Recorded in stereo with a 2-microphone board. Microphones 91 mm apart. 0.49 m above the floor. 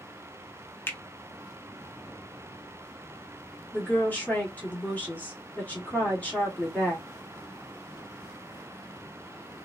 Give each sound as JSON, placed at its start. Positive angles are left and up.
{"t": 0.9, "sound": "a finger snap", "side_deg": 25, "distance_m": 0.7}
{"t": 3.7, "sound": "a woman speaking", "side_deg": 20, "distance_m": 1.2}